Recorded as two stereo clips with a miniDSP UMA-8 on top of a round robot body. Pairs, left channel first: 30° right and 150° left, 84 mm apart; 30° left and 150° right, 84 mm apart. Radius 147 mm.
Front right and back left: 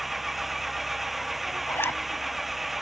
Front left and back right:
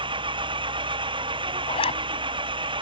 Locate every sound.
0.0 s an engine running: 120° right
1.7 s a zipper: 35° left